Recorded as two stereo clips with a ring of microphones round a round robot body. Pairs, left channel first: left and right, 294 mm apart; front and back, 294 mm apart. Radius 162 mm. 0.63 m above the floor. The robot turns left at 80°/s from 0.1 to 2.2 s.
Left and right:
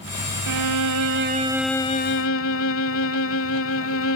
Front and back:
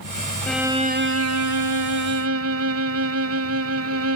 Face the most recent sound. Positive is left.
turn(degrees=135)